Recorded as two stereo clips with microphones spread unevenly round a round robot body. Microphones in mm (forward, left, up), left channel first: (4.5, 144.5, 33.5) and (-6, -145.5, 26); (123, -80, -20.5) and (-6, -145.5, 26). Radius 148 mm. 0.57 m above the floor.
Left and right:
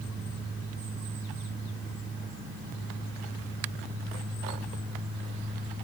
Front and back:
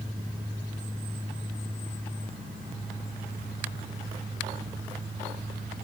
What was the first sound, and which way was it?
Only background noise.